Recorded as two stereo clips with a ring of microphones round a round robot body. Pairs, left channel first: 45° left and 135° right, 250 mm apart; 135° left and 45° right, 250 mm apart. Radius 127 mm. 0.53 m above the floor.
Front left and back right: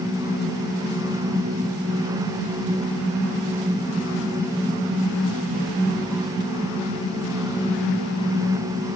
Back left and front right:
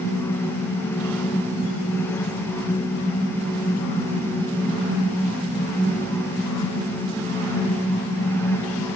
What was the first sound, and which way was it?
Only background noise.